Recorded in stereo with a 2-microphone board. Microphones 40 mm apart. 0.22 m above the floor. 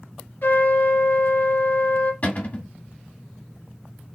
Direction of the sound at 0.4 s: 65° left (ahead or behind).